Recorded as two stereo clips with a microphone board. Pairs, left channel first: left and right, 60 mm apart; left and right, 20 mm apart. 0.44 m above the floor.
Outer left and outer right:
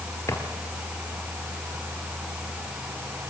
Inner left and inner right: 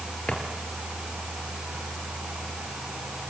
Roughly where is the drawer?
Left.